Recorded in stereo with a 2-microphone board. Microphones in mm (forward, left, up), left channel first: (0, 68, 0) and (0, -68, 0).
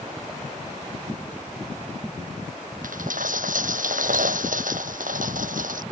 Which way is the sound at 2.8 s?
85° right.